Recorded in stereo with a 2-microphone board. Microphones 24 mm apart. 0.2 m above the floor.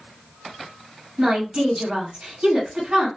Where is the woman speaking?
50° right (ahead or behind), 1.6 m.